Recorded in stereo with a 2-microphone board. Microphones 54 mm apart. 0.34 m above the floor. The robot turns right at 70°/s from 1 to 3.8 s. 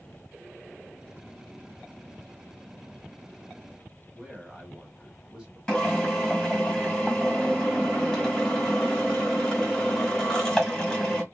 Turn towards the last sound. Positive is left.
turn(degrees=15)  # may be behind; listen again after turning